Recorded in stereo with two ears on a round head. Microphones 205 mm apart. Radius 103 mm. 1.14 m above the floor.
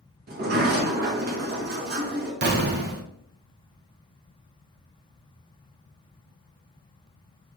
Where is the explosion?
45° right (ahead or behind), 1.0 m.